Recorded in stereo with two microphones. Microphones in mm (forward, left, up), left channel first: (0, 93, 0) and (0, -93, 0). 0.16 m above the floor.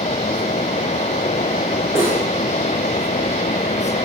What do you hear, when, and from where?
1.9 s cutlery clinking: 15° right (ahead or behind), 6.5 m